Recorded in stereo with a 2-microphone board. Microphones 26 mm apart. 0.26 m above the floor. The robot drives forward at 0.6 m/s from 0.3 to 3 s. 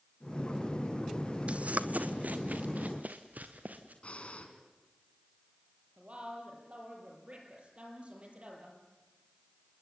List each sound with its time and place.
1.5 s running footsteps: 50° right (ahead or behind), 0.8 m; by 3.9 s 85° right, 3.5 m
4.0 s breathing: 55° left (ahead or behind), 3 m
6.0 s a woman speaking: 45° right (ahead or behind), 8 m